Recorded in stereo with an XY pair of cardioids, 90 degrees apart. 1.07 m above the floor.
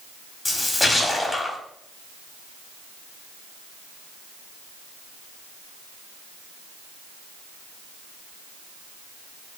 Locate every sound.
0.5 s a splash: 30° left, 1.3 m